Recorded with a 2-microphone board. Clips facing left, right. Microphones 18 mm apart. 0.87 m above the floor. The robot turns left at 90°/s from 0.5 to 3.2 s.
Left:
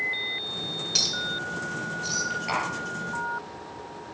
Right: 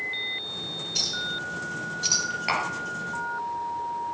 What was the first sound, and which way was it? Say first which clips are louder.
A clink: left 2 dB; 60° left (ahead or behind).